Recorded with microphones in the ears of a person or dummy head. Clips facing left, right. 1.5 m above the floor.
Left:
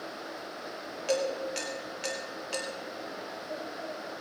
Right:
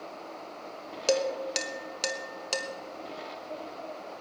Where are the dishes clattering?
65° right (ahead or behind), 1.3 m.